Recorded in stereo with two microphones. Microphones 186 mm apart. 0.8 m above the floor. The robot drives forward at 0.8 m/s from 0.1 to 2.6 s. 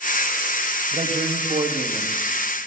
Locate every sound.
0.9 s a man speaking: 45° right (ahead or behind), 0.8 m; by 2.2 s 25° right (ahead or behind), 1.4 m